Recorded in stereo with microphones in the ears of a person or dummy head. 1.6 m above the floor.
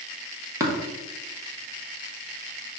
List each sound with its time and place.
0.6 s tapping: 15° right (ahead or behind), 1.5 m